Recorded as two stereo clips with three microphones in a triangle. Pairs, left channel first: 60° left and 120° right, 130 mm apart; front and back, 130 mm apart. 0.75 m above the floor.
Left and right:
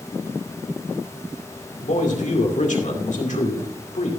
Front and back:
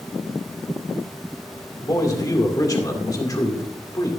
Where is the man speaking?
60° left, 2.5 m.